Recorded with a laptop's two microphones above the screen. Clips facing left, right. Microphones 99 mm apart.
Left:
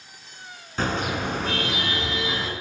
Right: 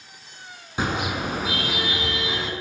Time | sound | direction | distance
0.8 | a car horn | 15° right (ahead or behind) | 6 m